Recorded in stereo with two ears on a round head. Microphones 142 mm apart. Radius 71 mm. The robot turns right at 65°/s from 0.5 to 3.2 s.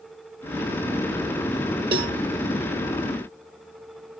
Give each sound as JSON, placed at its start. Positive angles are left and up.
{"t": 1.9, "sound": "a cowbell", "side_deg": -35, "distance_m": 1.0}